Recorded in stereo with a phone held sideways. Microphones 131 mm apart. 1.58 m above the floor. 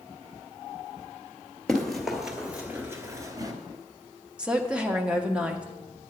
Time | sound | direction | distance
1.7 | running footsteps | 5° left (ahead or behind) | 2.0 m
4.4 | a woman speaking | 5° right (ahead or behind) | 1.0 m